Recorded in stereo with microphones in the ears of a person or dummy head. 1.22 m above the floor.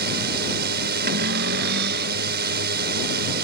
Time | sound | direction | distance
0.0 | a drone | 50° right (ahead or behind) | ?
1.1 | a cupboard door | 55° right (ahead or behind) | ?